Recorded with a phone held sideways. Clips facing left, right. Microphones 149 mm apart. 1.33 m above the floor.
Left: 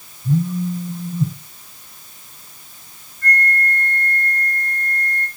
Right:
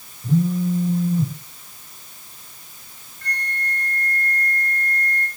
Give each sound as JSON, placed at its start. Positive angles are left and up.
{"t": 0.2, "sound": "a phone buzzing", "side_deg": -80, "distance_m": 3.5}
{"t": 3.2, "sound": "a flute", "side_deg": -75, "distance_m": 5.0}